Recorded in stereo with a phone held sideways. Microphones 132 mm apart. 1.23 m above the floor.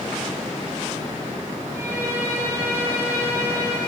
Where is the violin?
20° right (ahead or behind), 2.5 m.